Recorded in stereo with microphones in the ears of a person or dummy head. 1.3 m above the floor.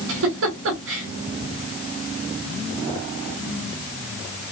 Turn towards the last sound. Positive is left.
turn(degrees=-75)  # may be behind; listen again after turning